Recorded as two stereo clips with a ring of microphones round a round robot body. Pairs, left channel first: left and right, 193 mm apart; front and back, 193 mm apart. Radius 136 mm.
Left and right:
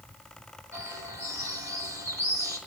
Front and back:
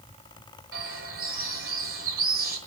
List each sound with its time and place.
0.7 s a bird: 170° right, 6 m